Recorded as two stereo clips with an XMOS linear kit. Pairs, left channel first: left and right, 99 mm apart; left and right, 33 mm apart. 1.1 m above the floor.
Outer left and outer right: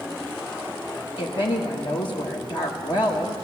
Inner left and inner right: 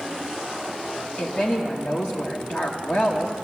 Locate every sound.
1.2 s a woman speaking: 55° left (ahead or behind), 1.2 m